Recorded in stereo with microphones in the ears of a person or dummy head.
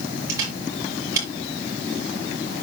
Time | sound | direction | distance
0.3 | a camera shutter | 15° right (ahead or behind) | 7 m